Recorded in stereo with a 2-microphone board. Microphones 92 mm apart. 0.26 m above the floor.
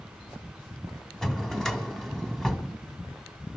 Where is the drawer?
5° left (ahead or behind), 1.0 m.